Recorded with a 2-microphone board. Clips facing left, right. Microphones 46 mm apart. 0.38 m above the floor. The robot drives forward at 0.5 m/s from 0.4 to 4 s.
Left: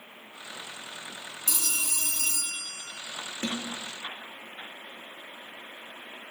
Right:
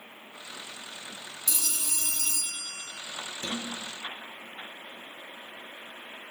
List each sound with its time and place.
1.5 s a phone ringing: 45° left (ahead or behind), 2.5 m; by 2.9 s 55° left (ahead or behind), 2 m
3.4 s a snare drum: 55° left (ahead or behind), 3 m